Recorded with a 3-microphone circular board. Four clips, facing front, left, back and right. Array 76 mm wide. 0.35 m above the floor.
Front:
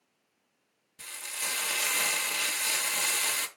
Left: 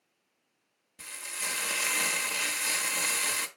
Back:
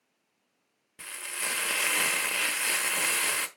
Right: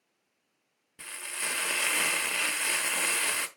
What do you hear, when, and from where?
1.0 s frying: 140° right, 0.8 m